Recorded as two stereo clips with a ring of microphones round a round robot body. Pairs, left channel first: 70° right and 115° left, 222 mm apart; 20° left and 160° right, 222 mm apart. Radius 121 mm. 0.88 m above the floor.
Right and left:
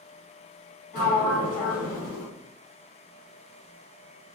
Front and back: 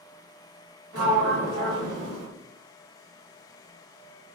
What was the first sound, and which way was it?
A sliding door, 120° right.